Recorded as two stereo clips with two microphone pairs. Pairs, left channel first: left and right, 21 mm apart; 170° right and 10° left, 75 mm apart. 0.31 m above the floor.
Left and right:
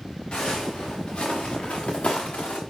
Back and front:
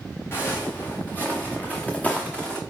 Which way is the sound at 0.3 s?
135° left.